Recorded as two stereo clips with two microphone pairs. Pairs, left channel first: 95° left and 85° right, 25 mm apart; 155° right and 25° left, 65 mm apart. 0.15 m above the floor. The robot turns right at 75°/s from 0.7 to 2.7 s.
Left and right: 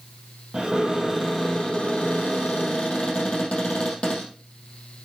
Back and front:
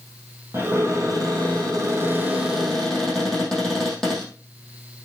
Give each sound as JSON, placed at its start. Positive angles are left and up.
{"t": 0.5, "sound": "a cupboard door", "azimuth_deg": -25, "distance_m": 5.0}